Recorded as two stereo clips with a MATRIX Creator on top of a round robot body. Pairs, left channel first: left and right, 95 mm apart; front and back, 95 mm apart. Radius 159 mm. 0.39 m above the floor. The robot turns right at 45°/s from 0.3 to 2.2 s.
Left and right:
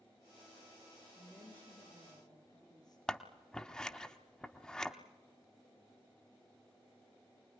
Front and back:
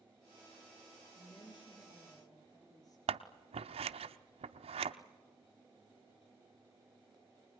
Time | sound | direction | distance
1.1 | a woman speaking | straight ahead | 7.5 m
3.1 | scissors | 175° left | 0.7 m